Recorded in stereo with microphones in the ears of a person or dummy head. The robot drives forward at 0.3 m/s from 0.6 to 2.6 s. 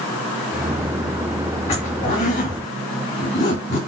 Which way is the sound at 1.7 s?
40° left (ahead or behind).